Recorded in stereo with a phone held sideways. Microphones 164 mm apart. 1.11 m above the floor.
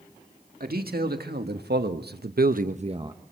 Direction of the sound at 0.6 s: 65° right (ahead or behind).